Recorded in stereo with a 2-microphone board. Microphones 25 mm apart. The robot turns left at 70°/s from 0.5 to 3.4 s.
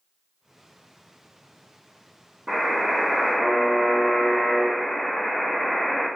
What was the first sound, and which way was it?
A buzzer, 80° right.